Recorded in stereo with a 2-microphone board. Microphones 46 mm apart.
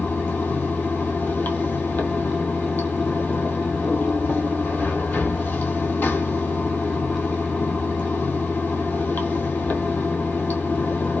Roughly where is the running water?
Left.